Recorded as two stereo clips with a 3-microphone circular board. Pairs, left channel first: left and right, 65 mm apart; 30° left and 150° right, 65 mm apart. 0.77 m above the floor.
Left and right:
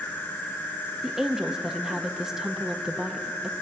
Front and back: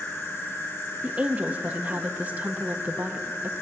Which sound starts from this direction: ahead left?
An insect, at 0.0 s.